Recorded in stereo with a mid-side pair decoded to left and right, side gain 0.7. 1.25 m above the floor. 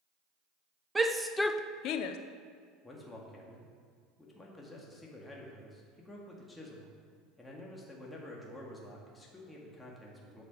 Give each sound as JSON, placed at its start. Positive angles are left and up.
{"t": 0.9, "sound": "a shout", "azimuth_deg": -10, "distance_m": 1.0}
{"t": 2.8, "sound": "a man speaking", "azimuth_deg": 15, "distance_m": 2.0}